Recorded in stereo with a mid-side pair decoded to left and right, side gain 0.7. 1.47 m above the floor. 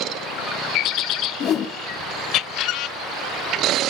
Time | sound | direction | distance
1.4 | a whoosh | 40° left | 1.7 m